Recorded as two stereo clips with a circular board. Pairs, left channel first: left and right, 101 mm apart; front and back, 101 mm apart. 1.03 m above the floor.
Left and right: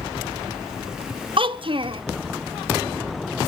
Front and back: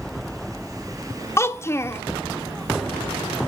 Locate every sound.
1.4 s a child speaking: 65° right, 0.7 m